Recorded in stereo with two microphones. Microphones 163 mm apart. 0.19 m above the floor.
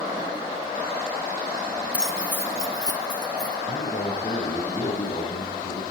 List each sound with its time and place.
1.9 s keys jangling: 10° right (ahead or behind), 0.7 m; by 3.6 s 25° left (ahead or behind), 2 m
3.7 s a man speaking: 50° left (ahead or behind), 9 m